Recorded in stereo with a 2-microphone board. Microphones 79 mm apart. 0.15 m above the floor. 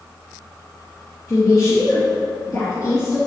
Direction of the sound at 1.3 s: 50° left (ahead or behind).